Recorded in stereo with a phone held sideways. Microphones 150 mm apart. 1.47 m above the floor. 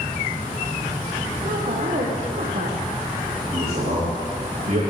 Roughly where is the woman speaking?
Right.